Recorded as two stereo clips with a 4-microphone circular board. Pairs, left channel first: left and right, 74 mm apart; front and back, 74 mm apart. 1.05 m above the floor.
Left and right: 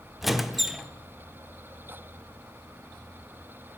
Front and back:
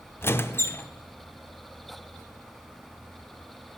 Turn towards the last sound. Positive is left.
turn(degrees=-5)